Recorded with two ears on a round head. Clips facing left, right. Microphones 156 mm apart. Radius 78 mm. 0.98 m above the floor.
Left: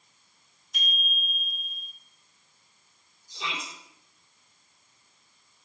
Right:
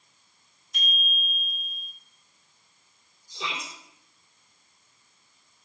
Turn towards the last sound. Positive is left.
turn(degrees=-70)  # may be behind; listen again after turning